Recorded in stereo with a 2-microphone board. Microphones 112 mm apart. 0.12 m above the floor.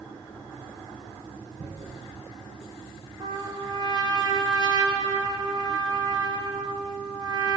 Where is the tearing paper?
70° right (ahead or behind), 10 m.